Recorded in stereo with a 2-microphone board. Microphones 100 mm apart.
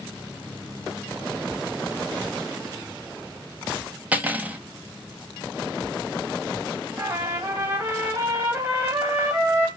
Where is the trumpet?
20° right (ahead or behind), 2.5 m.